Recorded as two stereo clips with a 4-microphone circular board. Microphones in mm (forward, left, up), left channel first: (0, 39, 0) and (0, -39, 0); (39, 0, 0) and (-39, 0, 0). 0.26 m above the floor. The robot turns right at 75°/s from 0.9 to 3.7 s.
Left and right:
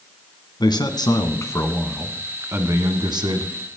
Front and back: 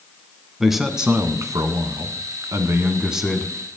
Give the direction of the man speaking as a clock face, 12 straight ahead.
9 o'clock.